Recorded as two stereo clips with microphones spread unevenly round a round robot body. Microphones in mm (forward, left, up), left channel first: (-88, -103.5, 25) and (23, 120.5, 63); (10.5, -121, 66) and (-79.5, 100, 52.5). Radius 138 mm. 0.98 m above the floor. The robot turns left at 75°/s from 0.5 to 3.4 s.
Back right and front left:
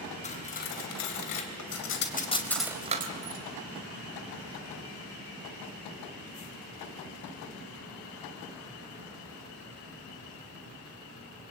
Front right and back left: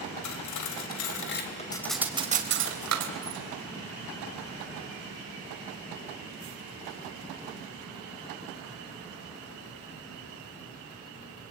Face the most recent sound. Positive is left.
turn(degrees=95)